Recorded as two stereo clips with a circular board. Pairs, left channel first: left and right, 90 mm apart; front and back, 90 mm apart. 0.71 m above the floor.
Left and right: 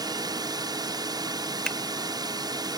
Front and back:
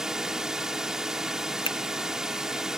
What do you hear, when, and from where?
0.0 s a drone: 95° right
1.6 s a finger snap: 10° left